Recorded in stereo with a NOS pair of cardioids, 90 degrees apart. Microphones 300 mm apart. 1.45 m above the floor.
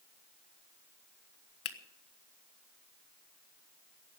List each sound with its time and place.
1.6 s a finger snap: 50° left, 1.3 m